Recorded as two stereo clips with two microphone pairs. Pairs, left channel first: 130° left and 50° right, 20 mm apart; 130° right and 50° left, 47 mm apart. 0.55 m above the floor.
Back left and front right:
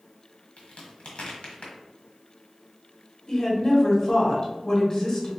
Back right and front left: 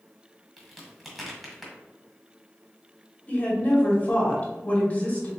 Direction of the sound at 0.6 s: 135° left.